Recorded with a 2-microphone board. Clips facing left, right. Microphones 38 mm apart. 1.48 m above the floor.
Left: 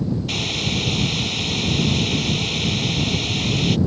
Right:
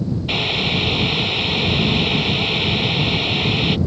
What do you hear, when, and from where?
0.3 s boiling: 25° right (ahead or behind)